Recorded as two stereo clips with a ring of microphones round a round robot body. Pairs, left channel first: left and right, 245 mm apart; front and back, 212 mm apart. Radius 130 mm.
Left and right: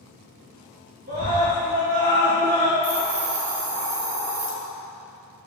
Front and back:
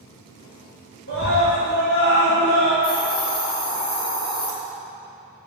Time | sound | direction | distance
1.1 | a scream | 40° right | 6 m
2.8 | a hiss | 60° right | 4 m